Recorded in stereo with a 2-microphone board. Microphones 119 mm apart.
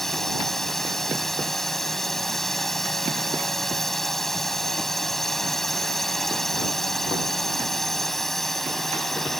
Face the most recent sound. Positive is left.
turn(degrees=0)  # may be behind; listen again after turning